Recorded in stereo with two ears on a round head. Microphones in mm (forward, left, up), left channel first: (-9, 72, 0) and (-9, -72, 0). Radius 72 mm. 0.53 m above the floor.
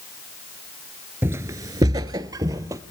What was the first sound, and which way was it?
Footsteps, 15° right (ahead or behind).